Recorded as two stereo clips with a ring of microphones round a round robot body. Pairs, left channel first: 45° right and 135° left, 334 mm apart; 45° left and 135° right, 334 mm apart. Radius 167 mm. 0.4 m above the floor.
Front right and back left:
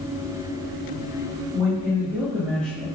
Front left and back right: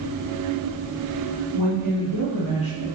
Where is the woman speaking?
60° left, 2.0 m; by 2.9 s 40° left, 1.6 m.